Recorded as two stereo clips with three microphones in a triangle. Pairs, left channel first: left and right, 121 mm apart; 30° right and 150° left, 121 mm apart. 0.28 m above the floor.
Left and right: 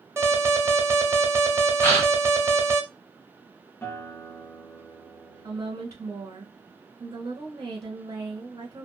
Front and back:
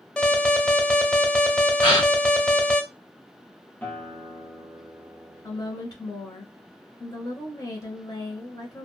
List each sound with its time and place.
0.2 s an alarm: 100° right, 0.6 m
1.8 s a gasp: 15° left, 1.9 m
3.8 s a guitar: 35° left, 0.8 m
5.4 s a woman speaking: 60° right, 1.2 m